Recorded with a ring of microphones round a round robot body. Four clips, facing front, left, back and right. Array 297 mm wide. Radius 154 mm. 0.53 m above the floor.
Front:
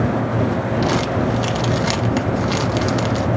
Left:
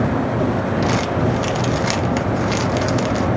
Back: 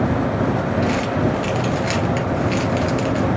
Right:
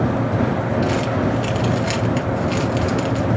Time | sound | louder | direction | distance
0.8 | crumpling | left 1 dB, front 1 dB | 35° left | 0.7 m